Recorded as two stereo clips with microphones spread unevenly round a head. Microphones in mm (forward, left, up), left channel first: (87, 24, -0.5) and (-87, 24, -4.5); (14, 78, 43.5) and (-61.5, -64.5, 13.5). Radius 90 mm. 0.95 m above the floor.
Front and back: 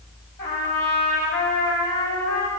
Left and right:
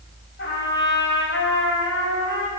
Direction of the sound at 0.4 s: 35° left.